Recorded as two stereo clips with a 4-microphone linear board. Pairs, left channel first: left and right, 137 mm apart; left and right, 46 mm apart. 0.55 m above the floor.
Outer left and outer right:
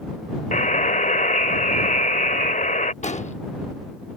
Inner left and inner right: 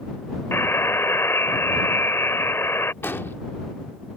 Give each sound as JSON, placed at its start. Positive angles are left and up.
{"t": 0.5, "sound": "a buzzer", "side_deg": 65}
{"t": 3.0, "sound": "an explosion", "side_deg": 55}